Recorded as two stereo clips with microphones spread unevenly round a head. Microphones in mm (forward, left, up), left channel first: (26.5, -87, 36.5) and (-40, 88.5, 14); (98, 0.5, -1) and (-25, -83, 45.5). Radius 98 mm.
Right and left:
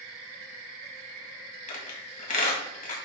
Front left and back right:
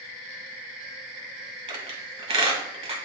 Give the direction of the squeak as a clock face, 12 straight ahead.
4 o'clock.